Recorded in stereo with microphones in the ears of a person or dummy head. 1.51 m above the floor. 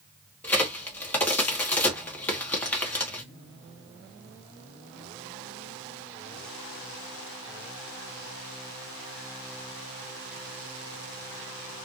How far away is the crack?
About 0.8 m.